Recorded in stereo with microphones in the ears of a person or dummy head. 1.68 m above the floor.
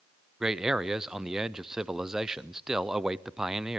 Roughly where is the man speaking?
Centre.